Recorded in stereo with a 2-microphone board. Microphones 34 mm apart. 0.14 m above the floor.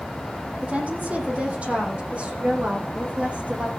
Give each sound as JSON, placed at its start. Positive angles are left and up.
{"t": 0.6, "sound": "a woman speaking", "side_deg": -40, "distance_m": 5.0}